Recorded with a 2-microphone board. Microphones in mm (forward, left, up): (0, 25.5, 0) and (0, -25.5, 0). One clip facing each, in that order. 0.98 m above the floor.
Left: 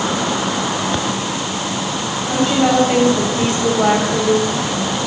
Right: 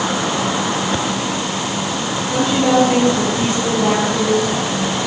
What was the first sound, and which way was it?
A woman speaking, 80° left.